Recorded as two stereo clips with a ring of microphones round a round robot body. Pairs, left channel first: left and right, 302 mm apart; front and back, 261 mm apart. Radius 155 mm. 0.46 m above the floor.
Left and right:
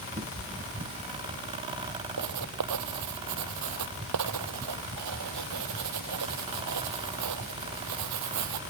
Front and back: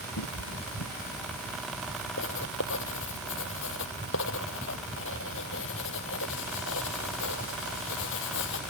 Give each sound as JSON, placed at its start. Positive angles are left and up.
{"t": 0.2, "sound": "a cat meowing", "azimuth_deg": -20}
{"t": 2.2, "sound": "writing", "azimuth_deg": -55}